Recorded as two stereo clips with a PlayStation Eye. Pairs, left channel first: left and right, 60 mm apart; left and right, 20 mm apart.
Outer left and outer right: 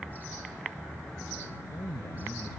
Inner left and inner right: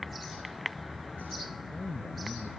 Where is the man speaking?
85° left.